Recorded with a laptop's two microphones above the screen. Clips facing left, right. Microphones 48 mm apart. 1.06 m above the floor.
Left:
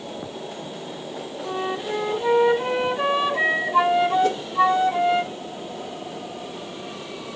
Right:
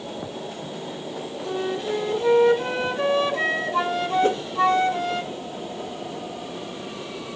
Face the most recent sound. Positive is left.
turn(degrees=-30)  # may be behind; listen again after turning